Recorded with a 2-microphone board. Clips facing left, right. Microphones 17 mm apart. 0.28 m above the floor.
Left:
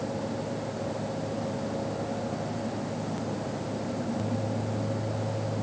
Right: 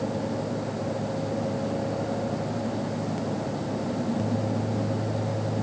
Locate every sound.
Only background noise.